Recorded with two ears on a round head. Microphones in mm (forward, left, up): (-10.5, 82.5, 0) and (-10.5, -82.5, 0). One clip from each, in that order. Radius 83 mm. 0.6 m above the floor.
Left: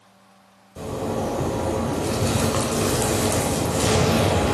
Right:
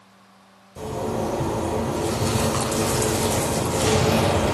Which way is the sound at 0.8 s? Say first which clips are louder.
Even; centre (ahead or behind).